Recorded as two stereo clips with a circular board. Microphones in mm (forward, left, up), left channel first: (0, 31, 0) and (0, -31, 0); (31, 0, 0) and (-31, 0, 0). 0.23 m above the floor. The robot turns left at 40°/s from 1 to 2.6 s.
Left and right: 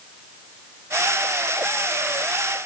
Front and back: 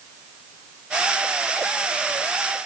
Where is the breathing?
I don't hear breathing.